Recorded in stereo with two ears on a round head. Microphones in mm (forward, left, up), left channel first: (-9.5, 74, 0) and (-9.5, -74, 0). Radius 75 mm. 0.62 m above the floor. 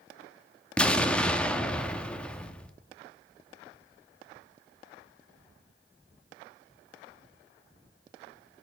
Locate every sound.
0.8 s an explosion: 5° left (ahead or behind), 0.5 m